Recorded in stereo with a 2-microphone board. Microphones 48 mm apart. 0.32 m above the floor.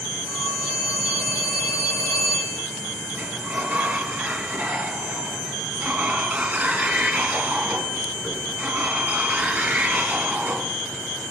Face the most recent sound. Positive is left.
turn(degrees=-35)  # may be behind; listen again after turning